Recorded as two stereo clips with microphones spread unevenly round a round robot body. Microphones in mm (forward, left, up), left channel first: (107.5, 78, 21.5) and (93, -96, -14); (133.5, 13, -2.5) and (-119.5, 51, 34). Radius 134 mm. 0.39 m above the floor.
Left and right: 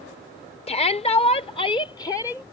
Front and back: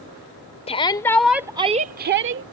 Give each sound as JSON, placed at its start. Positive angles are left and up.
{"t": 0.7, "sound": "a shout", "azimuth_deg": 35}